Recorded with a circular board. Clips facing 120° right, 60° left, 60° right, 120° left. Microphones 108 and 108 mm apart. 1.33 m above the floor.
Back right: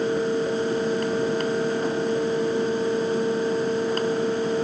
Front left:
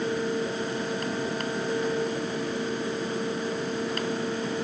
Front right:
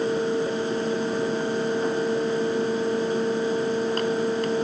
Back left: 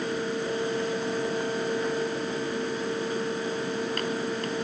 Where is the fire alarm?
No fire alarm in this recording.